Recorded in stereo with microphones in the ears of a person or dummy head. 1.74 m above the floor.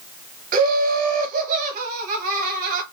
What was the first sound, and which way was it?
Laughter, 50° right (ahead or behind).